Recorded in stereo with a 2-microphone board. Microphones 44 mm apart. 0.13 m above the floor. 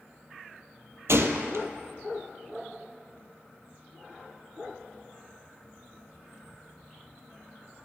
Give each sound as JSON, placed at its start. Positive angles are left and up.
{"t": 1.1, "sound": "a gunshot", "side_deg": -70, "distance_m": 0.9}